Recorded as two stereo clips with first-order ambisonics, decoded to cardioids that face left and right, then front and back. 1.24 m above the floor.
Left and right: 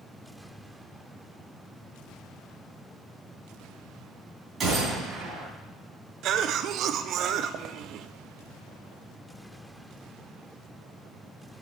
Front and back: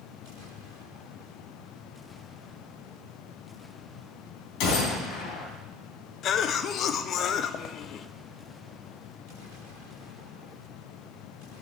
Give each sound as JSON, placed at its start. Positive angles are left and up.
{"t": 4.6, "sound": "a gunshot", "azimuth_deg": -20, "distance_m": 3.0}
{"t": 6.2, "sound": "a cough", "azimuth_deg": -50, "distance_m": 0.6}